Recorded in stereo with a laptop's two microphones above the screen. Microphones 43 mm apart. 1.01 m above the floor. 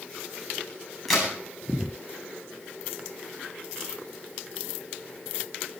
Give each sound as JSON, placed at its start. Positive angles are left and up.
{"t": 1.1, "sound": "a crack", "side_deg": 5, "distance_m": 9.0}